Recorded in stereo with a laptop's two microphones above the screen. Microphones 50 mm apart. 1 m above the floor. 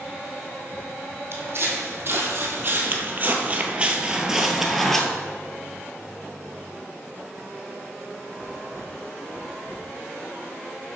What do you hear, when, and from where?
1.3 s footsteps: 55° right (ahead or behind), 1.9 m; by 5.0 s 5° left (ahead or behind), 1.0 m